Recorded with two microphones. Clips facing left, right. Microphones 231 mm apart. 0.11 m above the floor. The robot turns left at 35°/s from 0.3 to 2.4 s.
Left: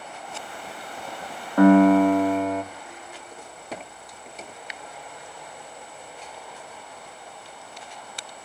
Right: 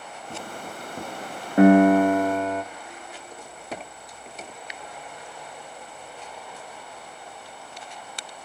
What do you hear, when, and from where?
1.6 s a piano: 20° right (ahead or behind), 0.5 m; by 2.6 s 5° left (ahead or behind), 0.5 m